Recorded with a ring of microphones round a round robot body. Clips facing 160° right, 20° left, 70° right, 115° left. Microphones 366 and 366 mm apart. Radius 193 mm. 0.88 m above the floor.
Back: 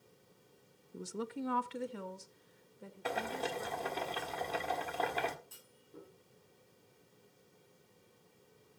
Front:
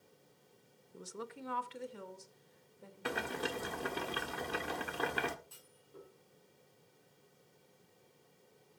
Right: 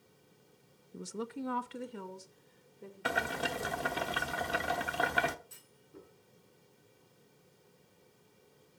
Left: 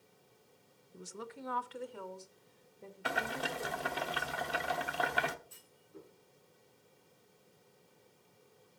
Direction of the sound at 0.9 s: 100° right.